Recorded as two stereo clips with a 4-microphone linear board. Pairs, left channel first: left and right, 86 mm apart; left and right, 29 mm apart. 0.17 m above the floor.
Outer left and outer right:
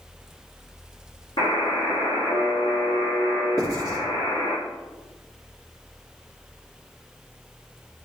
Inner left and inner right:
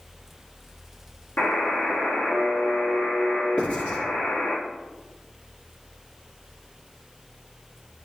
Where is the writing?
35° left (ahead or behind), 4 m.